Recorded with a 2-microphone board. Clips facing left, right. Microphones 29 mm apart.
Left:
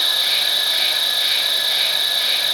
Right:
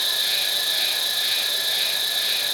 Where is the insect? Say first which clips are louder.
Left 5 dB; 45° left (ahead or behind), 1.5 m.